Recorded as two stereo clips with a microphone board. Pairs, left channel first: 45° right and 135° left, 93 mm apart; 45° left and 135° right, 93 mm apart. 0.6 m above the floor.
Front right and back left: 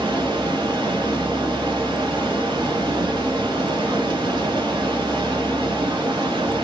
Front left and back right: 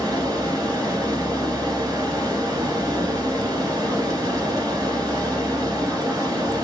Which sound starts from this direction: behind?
Running water, at 0.0 s.